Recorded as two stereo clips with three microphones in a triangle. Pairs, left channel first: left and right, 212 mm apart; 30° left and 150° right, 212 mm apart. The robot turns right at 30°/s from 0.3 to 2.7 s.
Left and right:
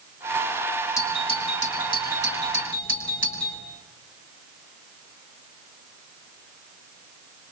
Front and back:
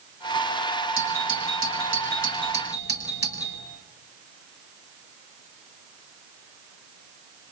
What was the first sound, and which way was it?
A doorbell, 15° left.